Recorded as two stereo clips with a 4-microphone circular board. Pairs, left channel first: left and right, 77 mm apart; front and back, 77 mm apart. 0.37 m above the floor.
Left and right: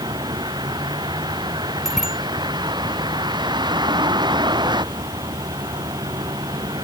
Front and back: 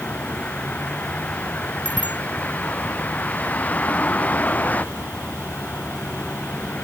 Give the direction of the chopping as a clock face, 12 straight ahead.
No chopping in this recording.